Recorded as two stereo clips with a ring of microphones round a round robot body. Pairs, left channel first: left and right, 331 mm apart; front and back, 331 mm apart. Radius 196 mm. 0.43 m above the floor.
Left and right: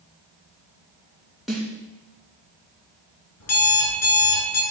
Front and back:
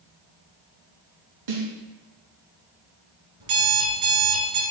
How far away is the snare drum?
About 4 m.